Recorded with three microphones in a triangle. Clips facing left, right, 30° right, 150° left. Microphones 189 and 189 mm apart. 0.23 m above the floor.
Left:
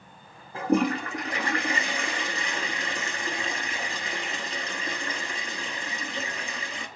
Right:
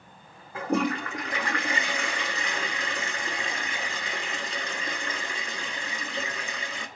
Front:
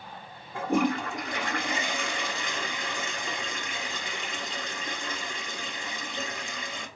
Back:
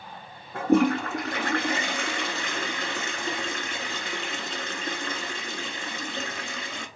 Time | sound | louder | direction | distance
0.5 | a toilet flushing | left 3 dB, back 5 dB | 140° left | 1.0 m